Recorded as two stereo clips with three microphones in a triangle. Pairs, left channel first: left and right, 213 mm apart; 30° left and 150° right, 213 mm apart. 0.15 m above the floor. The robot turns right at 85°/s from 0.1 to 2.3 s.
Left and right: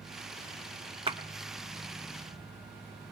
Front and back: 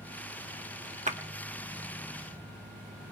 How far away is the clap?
About 1.2 m.